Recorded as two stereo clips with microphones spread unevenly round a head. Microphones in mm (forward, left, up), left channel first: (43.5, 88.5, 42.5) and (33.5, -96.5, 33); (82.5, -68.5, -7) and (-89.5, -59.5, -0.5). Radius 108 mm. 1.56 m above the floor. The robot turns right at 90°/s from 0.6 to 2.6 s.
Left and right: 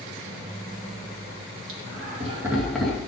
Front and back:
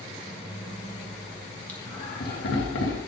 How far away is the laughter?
About 2.5 m.